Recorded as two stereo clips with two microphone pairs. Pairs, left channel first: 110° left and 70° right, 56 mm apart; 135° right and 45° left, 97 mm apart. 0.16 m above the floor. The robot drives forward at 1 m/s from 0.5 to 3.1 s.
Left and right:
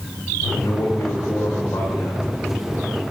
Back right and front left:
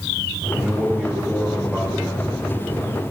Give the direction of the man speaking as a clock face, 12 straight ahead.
8 o'clock.